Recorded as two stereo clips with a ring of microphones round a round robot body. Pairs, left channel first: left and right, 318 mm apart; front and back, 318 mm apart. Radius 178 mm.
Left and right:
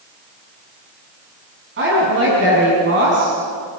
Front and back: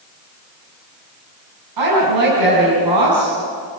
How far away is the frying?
No frying in this recording.